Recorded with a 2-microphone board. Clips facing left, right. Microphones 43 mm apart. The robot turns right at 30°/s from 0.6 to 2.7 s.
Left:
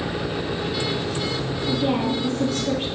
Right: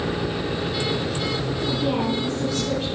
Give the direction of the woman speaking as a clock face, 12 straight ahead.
11 o'clock.